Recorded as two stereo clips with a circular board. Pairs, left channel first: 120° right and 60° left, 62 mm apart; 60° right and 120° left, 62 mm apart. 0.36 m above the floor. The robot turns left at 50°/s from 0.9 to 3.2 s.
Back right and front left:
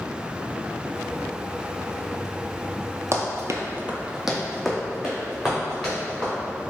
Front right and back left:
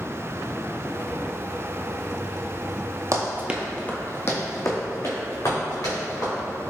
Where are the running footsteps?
95° left, 0.8 m; by 6.3 s 40° right, 3.5 m.